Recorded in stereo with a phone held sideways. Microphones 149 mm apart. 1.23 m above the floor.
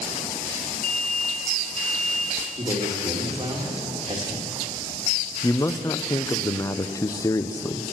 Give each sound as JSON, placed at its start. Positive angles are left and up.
{"t": 0.8, "sound": "an alarm", "side_deg": 60, "distance_m": 3.0}
{"t": 2.6, "sound": "a man speaking", "side_deg": -35, "distance_m": 1.7}
{"t": 5.4, "sound": "a man speaking", "side_deg": 20, "distance_m": 0.5}